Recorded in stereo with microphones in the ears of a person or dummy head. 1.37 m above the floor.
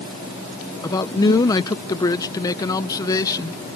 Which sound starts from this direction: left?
A man speaking, at 0.8 s.